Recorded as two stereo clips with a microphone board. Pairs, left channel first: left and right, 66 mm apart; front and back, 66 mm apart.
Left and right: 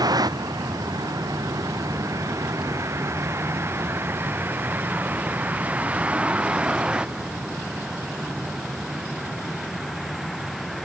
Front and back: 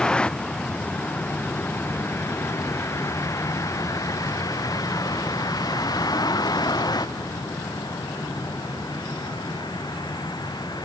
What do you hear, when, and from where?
0.0 s a vehicle: 75° right; by 10.8 s straight ahead